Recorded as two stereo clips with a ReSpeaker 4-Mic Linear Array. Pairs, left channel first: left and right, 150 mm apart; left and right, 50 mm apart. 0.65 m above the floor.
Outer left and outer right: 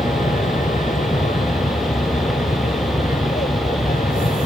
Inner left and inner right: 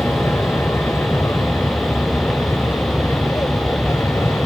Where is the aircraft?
65° left (ahead or behind).